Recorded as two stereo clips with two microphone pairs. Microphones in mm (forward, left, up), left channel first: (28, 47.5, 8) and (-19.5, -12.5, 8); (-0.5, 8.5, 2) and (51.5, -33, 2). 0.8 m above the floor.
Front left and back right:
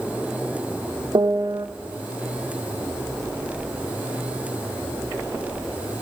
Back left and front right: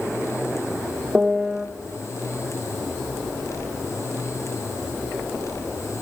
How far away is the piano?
About 0.8 m.